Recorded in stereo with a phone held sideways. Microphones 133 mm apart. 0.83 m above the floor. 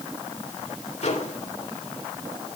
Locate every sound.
1.0 s a microwave: 60° left (ahead or behind), 2.5 m